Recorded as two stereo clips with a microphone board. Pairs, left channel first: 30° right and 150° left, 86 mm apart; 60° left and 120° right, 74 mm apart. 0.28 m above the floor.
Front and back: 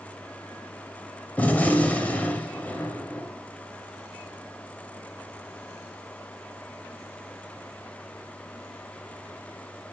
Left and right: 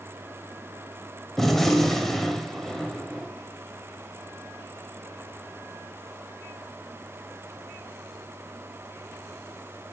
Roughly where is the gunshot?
Ahead.